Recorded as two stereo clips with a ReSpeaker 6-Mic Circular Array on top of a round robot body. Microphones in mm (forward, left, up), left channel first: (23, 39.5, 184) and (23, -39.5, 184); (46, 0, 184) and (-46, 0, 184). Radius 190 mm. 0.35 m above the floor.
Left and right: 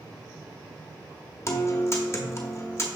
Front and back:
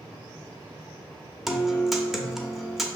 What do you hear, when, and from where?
1.5 s a guitar: 95° left, 0.9 m